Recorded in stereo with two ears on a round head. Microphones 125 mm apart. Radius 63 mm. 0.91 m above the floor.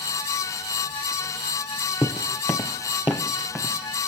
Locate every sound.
2.0 s footsteps: 15° left (ahead or behind), 1.1 m; by 3.7 s 10° left (ahead or behind), 2.5 m